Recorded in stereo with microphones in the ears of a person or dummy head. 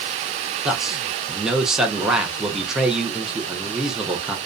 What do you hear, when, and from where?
0.7 s a man speaking: centre (ahead or behind), 0.6 m